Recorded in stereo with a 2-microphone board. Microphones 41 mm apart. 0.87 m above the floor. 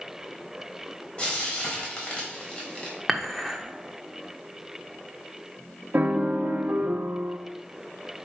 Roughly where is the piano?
Right.